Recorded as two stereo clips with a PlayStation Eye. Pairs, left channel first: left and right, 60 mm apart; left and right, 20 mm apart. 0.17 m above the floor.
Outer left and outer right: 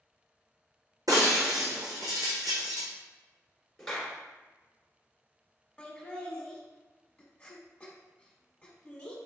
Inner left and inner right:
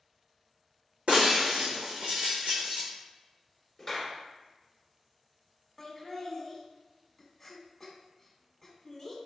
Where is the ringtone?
I don't hear a ringtone.